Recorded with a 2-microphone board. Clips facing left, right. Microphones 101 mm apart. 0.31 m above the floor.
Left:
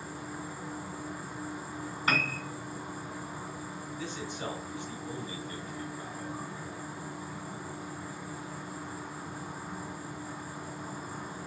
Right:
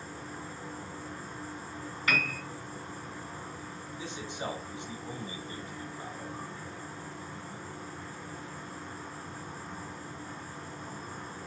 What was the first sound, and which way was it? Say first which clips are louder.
An insect: left 2 dB; 10° left (ahead or behind).